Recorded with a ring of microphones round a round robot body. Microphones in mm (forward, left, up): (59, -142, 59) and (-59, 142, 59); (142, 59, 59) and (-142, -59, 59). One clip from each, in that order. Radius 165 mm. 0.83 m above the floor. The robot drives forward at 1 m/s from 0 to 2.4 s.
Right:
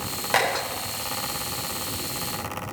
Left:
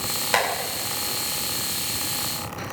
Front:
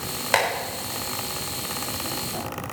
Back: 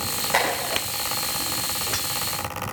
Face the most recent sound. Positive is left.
turn(degrees=60)